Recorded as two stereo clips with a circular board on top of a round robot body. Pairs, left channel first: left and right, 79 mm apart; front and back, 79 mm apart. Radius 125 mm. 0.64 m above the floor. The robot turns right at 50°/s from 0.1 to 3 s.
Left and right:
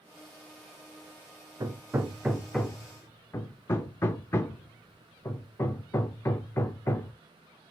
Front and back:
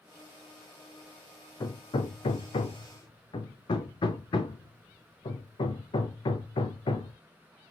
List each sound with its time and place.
1.6 s hammering: 40° right, 0.5 m; by 7.1 s 30° left, 0.5 m